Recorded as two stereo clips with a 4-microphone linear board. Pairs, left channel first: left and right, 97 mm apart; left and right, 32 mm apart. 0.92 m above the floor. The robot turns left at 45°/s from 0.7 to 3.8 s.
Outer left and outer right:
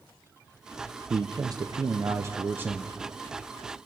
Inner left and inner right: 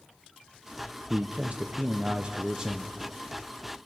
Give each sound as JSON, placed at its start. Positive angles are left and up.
{"t": 1.1, "sound": "a man speaking", "azimuth_deg": -80, "distance_m": 0.5}